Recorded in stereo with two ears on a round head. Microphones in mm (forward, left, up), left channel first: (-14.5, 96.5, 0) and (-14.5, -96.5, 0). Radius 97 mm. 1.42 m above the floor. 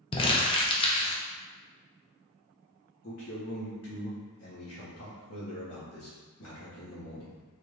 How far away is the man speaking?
About 1.6 m.